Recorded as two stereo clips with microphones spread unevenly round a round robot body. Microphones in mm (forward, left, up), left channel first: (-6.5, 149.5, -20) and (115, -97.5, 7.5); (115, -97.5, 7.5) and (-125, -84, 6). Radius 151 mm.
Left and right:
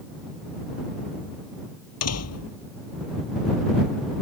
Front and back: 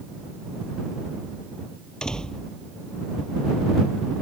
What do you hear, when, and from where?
2.0 s a door slam: 85° left